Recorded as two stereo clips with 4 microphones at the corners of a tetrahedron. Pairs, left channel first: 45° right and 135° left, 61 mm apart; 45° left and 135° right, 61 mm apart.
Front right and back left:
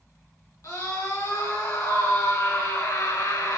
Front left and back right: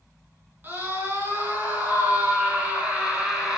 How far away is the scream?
About 9.5 m.